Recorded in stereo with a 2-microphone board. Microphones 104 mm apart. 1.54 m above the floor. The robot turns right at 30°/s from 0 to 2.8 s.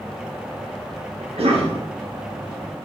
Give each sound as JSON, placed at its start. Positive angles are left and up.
{"t": 1.2, "sound": "a cough", "side_deg": -75, "distance_m": 0.7}